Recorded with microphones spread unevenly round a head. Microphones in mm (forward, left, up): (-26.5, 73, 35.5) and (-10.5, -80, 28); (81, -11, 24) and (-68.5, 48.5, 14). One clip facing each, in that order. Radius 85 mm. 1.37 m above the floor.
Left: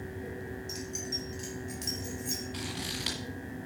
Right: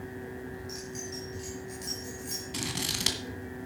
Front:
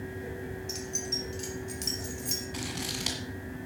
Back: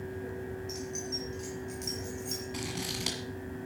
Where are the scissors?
110° right, 1.8 m.